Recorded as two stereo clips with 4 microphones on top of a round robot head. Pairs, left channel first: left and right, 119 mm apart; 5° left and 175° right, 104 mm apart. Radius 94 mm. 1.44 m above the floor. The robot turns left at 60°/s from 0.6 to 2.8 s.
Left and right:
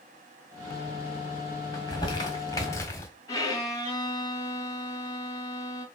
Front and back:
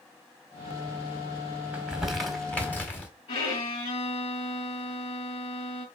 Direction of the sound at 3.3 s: 30° left.